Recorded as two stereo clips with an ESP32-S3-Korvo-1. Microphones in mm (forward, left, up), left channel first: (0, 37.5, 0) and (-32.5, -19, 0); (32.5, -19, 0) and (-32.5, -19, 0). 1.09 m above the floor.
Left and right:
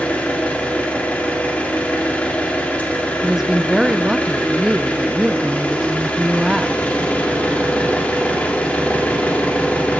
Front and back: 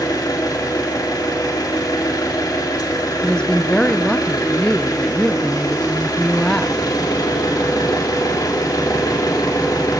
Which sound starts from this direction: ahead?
An engine running, at 0.0 s.